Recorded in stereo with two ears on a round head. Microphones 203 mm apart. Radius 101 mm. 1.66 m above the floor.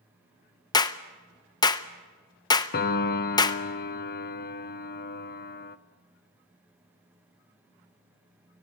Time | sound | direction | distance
0.7 | a clap | 20° left (ahead or behind) | 0.7 m
2.7 | a piano | 45° left (ahead or behind) | 0.8 m